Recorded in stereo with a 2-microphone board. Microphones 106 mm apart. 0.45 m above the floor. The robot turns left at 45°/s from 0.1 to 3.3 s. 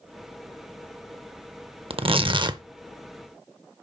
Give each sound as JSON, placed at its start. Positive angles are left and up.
{"t": 1.9, "sound": "tearing paper", "azimuth_deg": -100, "distance_m": 0.5}